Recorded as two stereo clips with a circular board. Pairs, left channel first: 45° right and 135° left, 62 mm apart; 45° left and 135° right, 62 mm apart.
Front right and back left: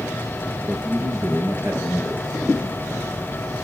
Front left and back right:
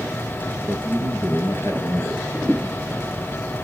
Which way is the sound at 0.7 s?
85° left.